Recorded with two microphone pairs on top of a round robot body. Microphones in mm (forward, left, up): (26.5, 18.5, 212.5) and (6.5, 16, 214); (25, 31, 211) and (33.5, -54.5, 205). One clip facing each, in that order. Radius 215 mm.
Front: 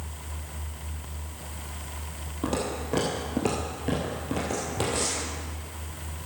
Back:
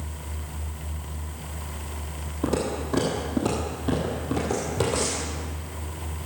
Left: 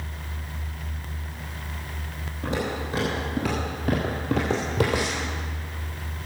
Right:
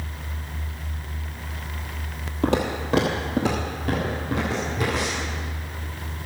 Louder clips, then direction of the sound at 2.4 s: Back 3 dB, right 5 dB; 65° right.